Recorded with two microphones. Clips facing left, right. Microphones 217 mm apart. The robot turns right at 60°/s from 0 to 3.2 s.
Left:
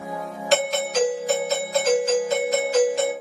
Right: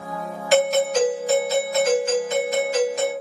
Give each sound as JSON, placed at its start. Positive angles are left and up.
{"t": 0.5, "sound": "a doorbell", "azimuth_deg": -20, "distance_m": 1.9}